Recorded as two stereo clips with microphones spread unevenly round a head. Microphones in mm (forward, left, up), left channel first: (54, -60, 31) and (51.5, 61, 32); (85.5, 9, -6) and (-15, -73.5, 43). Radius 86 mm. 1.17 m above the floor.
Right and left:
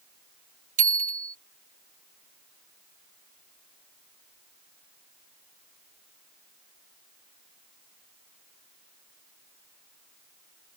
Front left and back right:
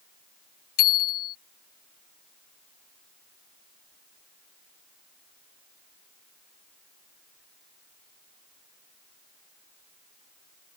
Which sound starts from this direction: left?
A bicycle bell, at 0.8 s.